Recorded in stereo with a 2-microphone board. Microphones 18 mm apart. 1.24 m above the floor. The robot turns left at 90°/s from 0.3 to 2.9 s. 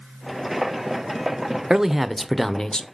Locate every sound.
1.7 s a man speaking: 140° right, 0.7 m; by 2.8 s 115° left, 0.7 m